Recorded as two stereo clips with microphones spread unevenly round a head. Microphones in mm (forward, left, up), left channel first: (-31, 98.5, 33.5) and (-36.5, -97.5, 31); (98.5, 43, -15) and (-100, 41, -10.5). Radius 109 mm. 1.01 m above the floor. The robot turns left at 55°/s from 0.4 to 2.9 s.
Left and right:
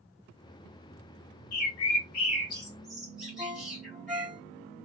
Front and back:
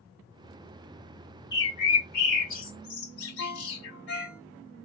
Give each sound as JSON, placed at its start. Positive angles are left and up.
{"t": 1.5, "sound": "a bird", "azimuth_deg": 75, "distance_m": 1.3}
{"t": 3.4, "sound": "a ringtone", "azimuth_deg": -5, "distance_m": 1.8}